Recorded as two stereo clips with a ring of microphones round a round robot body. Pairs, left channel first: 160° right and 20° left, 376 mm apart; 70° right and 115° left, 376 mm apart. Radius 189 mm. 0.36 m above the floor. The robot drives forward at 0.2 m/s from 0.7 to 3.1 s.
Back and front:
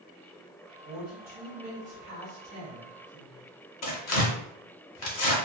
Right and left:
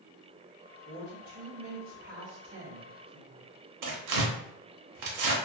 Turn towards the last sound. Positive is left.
turn(degrees=155)